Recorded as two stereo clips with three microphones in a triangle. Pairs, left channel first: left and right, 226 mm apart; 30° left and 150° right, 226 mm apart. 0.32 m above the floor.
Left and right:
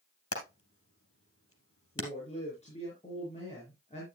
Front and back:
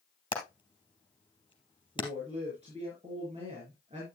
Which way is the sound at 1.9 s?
150° left.